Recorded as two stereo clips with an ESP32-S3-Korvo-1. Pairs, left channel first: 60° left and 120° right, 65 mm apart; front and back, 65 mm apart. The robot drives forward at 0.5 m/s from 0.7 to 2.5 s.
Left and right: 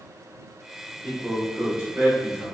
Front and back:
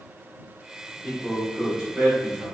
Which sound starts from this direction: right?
A man speaking, at 1.0 s.